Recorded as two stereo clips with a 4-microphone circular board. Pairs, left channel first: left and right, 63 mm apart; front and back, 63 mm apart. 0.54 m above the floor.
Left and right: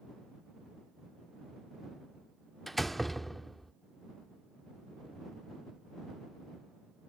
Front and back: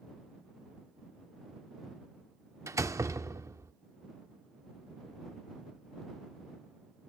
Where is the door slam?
175° left.